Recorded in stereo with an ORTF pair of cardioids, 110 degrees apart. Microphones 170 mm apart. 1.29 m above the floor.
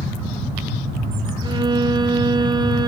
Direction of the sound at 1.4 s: 25° right.